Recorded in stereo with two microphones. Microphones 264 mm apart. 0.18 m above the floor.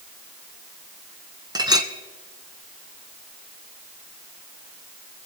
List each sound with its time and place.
1.6 s a clink: 15° right (ahead or behind), 1.0 m